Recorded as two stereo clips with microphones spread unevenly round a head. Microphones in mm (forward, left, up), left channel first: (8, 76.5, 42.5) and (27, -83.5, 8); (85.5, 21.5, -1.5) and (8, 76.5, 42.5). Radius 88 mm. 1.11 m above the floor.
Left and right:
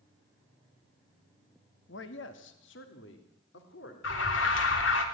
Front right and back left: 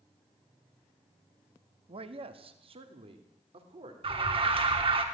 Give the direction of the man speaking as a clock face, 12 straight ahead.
8 o'clock.